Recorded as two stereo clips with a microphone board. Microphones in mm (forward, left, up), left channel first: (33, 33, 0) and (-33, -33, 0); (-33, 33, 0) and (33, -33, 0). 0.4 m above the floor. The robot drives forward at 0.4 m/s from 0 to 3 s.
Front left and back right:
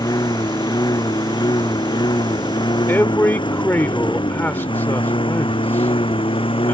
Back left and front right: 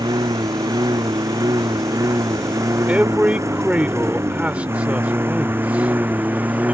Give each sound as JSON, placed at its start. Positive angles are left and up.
{"t": 0.0, "sound": "a lawn mower", "azimuth_deg": 0}
{"t": 2.9, "sound": "a man speaking", "azimuth_deg": 10}